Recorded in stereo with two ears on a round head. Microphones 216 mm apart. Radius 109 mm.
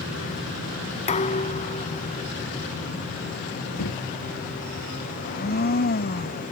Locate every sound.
1.1 s dishes clattering: 30° left (ahead or behind)
3.8 s a drawer: 80° left
5.2 s a blender: 40° left (ahead or behind)